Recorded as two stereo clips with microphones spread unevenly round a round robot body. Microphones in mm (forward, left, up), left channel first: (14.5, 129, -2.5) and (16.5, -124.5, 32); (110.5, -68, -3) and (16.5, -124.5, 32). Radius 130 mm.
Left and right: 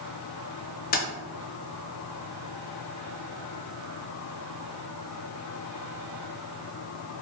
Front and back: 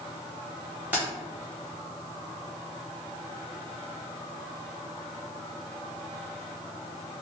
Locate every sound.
0.9 s keys jangling: 120° left, 0.7 m